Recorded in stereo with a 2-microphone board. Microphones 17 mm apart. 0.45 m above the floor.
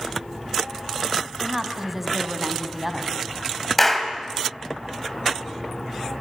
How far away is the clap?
About 2.5 m.